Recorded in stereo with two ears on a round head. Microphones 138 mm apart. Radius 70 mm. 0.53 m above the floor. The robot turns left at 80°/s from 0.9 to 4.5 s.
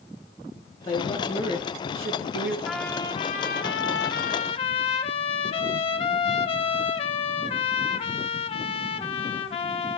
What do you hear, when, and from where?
0.8 s a woman speaking: 30° left, 7.5 m; by 2.5 s 105° right, 7.5 m
2.6 s a trumpet: straight behind, 1.1 m; by 10.0 s 35° left, 1.1 m